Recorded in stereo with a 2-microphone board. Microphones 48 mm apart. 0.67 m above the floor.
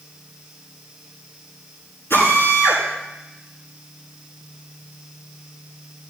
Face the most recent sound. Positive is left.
turn(degrees=50)  # may be behind; listen again after turning